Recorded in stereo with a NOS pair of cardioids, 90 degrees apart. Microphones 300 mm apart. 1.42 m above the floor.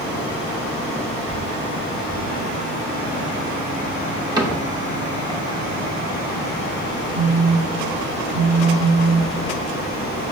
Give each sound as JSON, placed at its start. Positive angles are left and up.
{"t": 4.4, "sound": "a cupboard door", "azimuth_deg": -15, "distance_m": 1.6}
{"t": 7.1, "sound": "a phone buzzing", "azimuth_deg": 60, "distance_m": 3.5}